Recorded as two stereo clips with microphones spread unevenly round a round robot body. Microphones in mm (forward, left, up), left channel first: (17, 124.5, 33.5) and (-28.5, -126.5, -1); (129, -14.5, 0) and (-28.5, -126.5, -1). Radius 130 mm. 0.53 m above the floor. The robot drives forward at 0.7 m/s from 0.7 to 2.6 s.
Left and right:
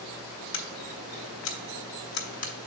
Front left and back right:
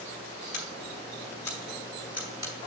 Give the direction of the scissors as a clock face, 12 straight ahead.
9 o'clock.